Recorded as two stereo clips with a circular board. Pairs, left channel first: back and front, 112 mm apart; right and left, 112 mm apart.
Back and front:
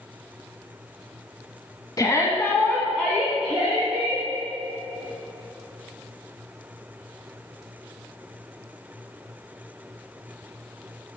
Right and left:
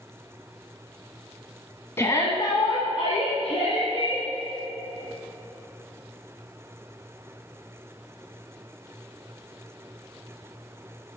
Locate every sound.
2.0 s a shout: 145° right, 1.3 m; by 4.2 s 75° right, 2.5 m